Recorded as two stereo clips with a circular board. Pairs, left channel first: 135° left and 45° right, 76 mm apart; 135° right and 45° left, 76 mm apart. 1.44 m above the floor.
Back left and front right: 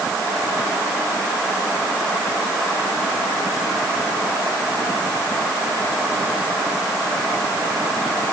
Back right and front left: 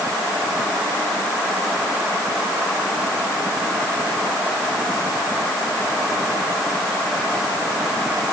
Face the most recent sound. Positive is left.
No sound to turn to.